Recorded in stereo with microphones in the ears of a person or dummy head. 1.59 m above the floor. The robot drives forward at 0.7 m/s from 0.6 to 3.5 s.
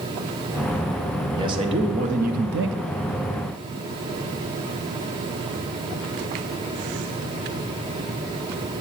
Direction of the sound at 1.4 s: 25° right (ahead or behind).